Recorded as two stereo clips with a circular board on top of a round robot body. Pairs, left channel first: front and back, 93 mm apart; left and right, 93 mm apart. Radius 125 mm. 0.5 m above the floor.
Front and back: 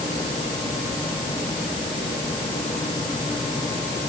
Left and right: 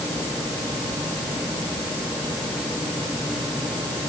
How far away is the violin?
No violin in this recording.